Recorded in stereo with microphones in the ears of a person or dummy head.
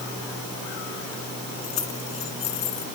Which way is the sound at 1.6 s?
40° left (ahead or behind).